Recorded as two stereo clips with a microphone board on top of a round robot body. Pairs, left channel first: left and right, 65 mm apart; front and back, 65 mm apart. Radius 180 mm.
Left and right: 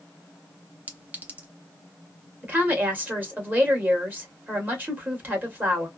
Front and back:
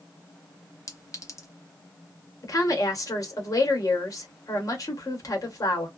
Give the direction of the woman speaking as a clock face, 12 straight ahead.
1 o'clock.